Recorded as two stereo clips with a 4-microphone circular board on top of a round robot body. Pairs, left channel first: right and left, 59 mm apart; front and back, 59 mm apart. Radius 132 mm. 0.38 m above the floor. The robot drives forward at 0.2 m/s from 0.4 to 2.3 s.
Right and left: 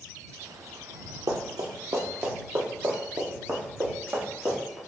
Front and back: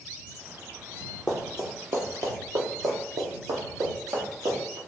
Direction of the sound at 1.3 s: 85° left.